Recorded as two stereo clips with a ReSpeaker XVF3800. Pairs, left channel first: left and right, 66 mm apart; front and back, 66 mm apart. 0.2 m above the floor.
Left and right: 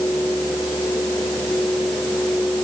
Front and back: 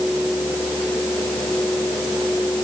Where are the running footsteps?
I don't hear running footsteps.